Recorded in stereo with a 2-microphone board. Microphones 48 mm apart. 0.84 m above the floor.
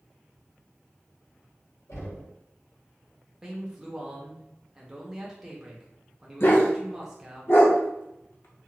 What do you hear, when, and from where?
1.9 s knocking: 80° left, 1.7 m
3.4 s a man speaking: 10° right (ahead or behind), 0.8 m
6.4 s a dog barking: 50° left (ahead or behind), 0.6 m